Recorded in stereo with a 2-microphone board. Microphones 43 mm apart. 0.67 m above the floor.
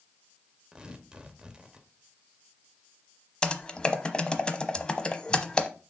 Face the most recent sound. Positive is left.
turn(degrees=20)  # may be behind; listen again after turning